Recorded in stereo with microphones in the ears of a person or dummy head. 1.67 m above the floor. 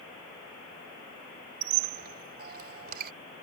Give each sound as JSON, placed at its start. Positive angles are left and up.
{"t": 1.6, "sound": "a squeak", "side_deg": -65}